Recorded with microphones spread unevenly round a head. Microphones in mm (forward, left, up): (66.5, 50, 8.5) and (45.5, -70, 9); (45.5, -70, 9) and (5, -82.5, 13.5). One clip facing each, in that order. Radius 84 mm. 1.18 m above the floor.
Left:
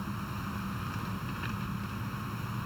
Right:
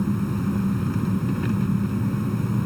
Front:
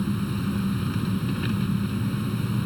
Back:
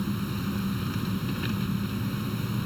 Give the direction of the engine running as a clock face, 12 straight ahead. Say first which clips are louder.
Right 14 dB, front 3 dB; 2 o'clock.